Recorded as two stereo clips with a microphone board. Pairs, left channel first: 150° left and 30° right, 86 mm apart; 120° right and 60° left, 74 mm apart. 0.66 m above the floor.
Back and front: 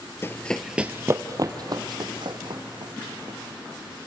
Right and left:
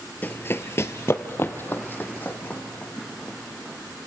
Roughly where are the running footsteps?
Behind.